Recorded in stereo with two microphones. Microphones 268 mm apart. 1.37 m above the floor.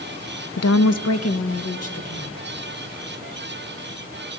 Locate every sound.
0.6 s a woman speaking: 80° left, 0.5 m; by 2.4 s 70° left (ahead or behind), 2.0 m